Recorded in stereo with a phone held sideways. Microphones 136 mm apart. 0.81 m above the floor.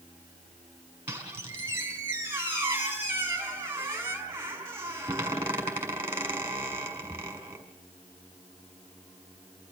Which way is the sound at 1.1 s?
20° right (ahead or behind).